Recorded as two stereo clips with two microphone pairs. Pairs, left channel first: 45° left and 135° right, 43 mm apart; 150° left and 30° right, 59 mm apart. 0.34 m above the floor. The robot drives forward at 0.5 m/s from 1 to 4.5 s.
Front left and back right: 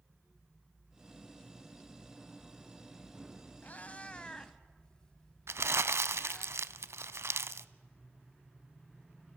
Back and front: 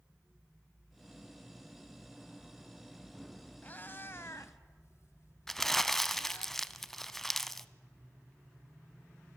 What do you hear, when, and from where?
3.6 s a cat meowing: 90° left, 1.1 m; by 6.5 s 115° left, 1.2 m
5.5 s crumpling: 130° right, 0.5 m